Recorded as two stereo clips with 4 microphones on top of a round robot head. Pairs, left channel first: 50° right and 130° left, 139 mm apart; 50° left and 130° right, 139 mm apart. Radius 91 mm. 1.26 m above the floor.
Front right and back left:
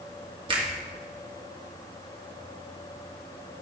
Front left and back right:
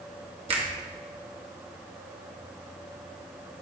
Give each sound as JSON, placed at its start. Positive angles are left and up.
{"t": 0.5, "sound": "a finger snap", "azimuth_deg": 180, "distance_m": 1.7}